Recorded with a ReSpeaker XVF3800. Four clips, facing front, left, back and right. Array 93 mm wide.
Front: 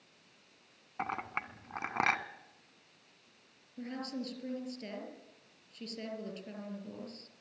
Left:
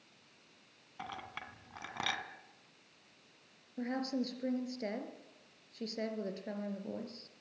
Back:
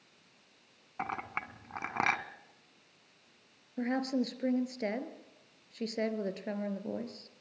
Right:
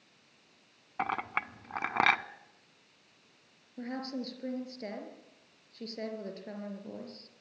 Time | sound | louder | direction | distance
1.0 | a clink | right 12 dB, even | 90° right | 1.0 m
3.8 | a woman speaking | left 2 dB, back 8 dB | 175° left | 3 m